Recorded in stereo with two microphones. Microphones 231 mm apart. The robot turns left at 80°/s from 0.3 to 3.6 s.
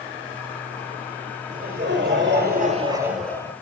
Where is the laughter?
45° right, 1.8 m; by 3.5 s 155° left, 1.8 m.